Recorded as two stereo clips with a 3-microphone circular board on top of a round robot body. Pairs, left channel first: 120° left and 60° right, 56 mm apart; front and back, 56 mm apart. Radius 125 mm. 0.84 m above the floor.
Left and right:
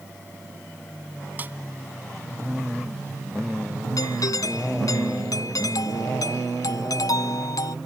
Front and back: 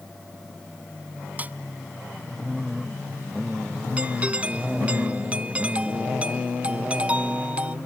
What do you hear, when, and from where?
1.4 s a snare drum: 120° right
4.0 s a doorbell: 110° left